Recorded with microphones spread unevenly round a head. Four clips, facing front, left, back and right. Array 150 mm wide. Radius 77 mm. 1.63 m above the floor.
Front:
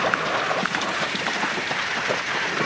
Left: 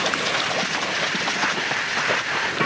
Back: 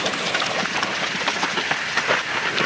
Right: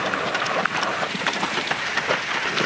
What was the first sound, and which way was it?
Only background noise.